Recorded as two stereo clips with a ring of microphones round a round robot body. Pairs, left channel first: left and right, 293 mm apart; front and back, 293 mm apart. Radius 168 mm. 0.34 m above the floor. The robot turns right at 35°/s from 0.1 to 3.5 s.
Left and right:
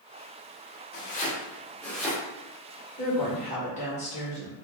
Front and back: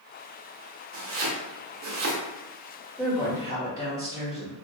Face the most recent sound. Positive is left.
turn(degrees=115)